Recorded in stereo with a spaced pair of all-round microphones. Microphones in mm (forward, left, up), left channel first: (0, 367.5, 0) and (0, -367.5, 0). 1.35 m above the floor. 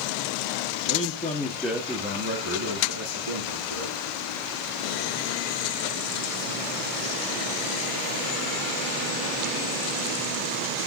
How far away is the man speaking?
About 1.2 m.